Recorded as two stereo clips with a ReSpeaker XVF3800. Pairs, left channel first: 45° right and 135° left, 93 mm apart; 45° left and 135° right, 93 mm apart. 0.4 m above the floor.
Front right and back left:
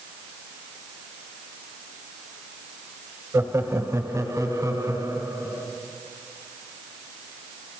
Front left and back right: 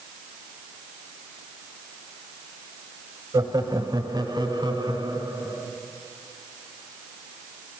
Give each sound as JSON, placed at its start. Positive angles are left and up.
{"t": 3.3, "sound": "laughter", "azimuth_deg": -170, "distance_m": 1.5}